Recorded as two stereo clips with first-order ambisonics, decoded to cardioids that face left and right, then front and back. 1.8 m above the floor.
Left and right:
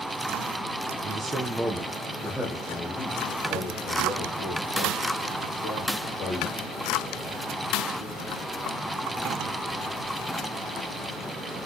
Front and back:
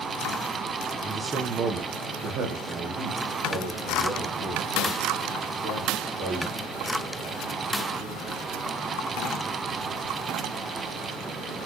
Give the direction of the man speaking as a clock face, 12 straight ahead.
3 o'clock.